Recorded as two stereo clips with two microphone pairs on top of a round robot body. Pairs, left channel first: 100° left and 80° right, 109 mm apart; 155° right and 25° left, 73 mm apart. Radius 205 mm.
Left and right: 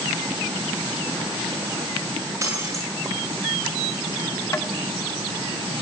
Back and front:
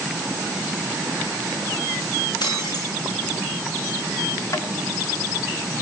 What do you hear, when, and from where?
2.4 s breaking glass: 145° right, 9.5 m
4.5 s tapping: 160° left, 1.5 m